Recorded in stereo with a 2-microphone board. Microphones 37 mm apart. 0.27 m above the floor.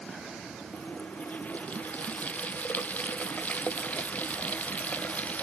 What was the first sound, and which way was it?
A running tap, 45° left (ahead or behind).